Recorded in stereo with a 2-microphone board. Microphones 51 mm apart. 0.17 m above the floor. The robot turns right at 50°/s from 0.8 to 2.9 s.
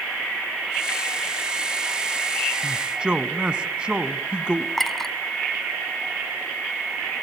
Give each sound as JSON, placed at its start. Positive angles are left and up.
{"t": 2.6, "sound": "a man speaking", "side_deg": -25, "distance_m": 1.0}
{"t": 4.8, "sound": "a clink", "side_deg": 0, "distance_m": 0.6}